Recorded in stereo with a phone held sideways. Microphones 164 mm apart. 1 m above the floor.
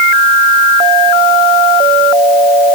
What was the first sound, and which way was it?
Only background noise.